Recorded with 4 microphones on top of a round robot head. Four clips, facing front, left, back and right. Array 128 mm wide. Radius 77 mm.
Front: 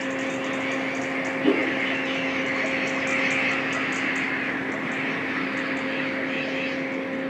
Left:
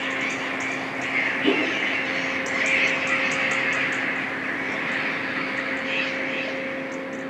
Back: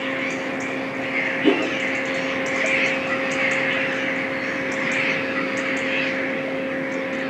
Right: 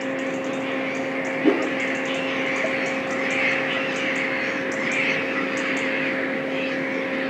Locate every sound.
1.4 s a whoosh: 125° right, 0.7 m